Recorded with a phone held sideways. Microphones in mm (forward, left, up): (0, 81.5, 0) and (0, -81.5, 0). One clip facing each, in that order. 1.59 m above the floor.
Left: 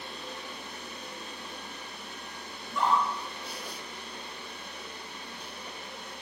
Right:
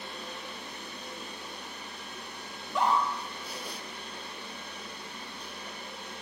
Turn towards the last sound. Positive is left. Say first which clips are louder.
# even
turn(degrees=-80)